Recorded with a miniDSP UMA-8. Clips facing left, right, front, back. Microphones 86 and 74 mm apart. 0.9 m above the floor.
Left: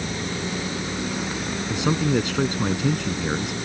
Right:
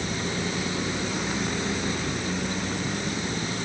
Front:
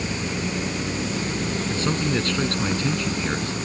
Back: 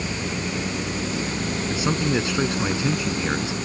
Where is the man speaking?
100° left.